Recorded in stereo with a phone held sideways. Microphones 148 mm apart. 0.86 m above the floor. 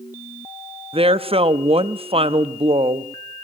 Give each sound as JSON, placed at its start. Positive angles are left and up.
{"t": 0.9, "sound": "a woman speaking", "side_deg": -40, "distance_m": 0.8}